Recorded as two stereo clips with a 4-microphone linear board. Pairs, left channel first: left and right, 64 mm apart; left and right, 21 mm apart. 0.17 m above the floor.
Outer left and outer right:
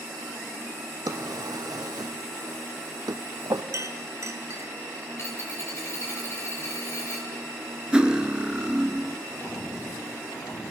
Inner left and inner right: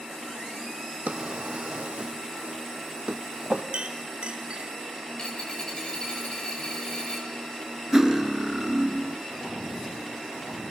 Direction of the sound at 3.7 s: 55° right (ahead or behind).